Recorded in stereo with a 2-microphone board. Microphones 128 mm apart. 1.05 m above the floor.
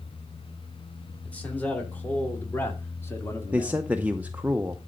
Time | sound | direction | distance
1.2 | a man speaking | 10° left (ahead or behind) | 3.5 m
3.5 | a man speaking | 10° right (ahead or behind) | 0.6 m